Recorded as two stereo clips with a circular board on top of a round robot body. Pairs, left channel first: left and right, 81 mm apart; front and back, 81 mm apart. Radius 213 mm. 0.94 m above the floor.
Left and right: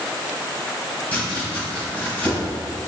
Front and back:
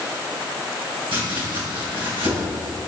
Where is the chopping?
165° left, 3.5 m.